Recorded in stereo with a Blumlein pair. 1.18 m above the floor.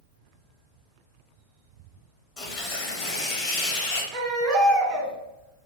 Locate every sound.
2.4 s tearing paper: 35° left, 0.8 m
4.1 s a baby crying: 30° right, 1.0 m